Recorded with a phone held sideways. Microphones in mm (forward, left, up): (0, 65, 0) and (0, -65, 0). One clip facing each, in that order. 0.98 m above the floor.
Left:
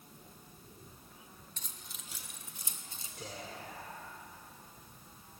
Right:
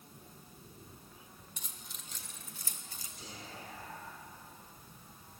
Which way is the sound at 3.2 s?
75° left (ahead or behind).